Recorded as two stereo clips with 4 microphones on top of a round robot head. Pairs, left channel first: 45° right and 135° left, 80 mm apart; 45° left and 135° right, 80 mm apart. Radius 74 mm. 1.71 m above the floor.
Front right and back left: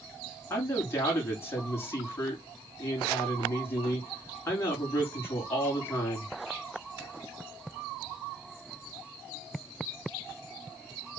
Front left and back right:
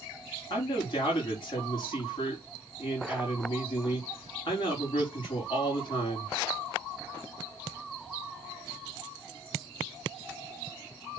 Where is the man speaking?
15° left, 5 m.